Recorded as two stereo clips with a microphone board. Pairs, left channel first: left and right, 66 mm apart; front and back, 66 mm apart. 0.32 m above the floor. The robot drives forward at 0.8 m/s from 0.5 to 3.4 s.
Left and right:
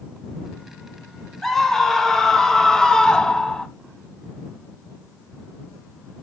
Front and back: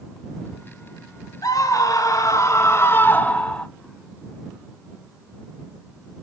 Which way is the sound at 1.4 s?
5° left.